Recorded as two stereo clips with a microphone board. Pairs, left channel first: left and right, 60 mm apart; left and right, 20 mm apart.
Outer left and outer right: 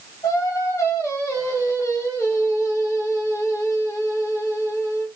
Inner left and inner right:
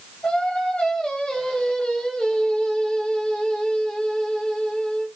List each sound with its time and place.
0.2 s singing: 60° left (ahead or behind), 1.1 m